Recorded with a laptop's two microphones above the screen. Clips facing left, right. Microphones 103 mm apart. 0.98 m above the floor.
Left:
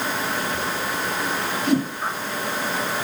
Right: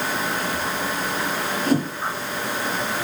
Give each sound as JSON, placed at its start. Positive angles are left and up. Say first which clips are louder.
{"t": 1.7, "sound": "a whoosh", "louder": "even", "side_deg": -35, "distance_m": 3.5}